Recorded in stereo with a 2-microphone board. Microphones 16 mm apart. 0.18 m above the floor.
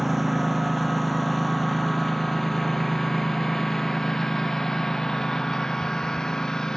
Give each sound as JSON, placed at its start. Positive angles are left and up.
{"t": 0.0, "sound": "a lawn mower", "side_deg": -5}